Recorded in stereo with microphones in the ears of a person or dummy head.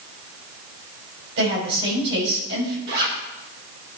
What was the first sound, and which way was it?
A woman speaking, 60° right (ahead or behind).